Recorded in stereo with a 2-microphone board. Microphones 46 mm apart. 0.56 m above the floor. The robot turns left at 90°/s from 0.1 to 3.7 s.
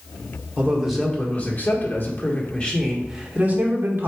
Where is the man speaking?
145° right, 1.6 m; by 4.1 s 65° right, 1.6 m.